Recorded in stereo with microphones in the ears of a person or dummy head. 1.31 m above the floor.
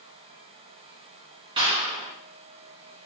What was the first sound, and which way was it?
A clap, 30° right (ahead or behind).